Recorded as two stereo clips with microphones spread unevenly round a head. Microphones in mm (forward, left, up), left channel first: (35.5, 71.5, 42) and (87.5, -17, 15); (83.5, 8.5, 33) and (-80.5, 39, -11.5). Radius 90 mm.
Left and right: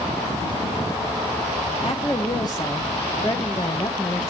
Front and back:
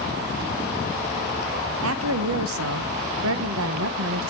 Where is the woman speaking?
Straight behind, 1.1 m.